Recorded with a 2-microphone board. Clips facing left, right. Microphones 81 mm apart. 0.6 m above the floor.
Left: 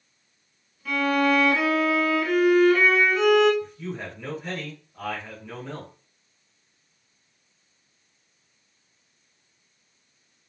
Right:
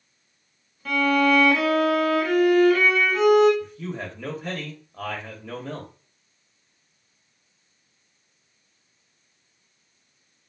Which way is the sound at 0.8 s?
75° right (ahead or behind).